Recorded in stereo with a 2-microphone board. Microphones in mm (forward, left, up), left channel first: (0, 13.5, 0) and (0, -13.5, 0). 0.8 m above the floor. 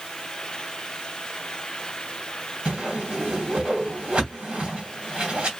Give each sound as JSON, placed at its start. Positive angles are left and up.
{"t": 2.6, "sound": "a whoosh", "side_deg": -40, "distance_m": 2.5}